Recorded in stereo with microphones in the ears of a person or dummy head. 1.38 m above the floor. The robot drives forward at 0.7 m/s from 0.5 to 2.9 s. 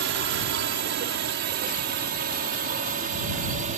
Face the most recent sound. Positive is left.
turn(degrees=-35)  # may be behind; listen again after turning